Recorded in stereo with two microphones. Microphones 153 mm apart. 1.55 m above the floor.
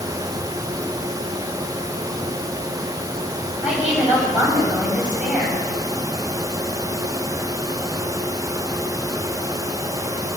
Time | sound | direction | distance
3.6 | a woman speaking | 10° right (ahead or behind) | 8 m